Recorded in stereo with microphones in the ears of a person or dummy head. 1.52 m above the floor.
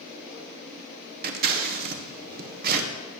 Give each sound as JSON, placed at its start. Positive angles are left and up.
{"t": 1.2, "sound": "scissors", "side_deg": -50, "distance_m": 1.3}